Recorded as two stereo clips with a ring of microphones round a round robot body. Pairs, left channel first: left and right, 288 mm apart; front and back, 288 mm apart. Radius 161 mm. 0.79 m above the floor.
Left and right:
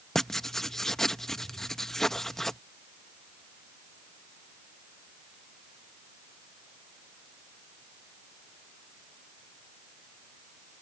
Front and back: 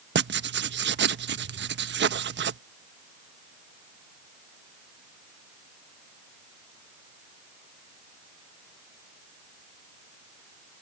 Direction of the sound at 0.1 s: Straight behind.